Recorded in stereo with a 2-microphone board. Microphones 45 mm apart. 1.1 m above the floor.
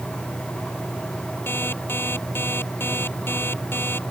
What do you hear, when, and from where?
1.5 s an alarm clock: 55° left (ahead or behind)